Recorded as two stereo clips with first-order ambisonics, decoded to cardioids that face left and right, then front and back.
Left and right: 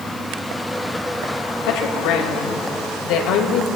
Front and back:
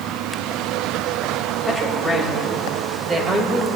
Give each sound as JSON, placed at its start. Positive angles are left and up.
{"t": 1.6, "sound": "a woman speaking", "azimuth_deg": 85, "distance_m": 2.0}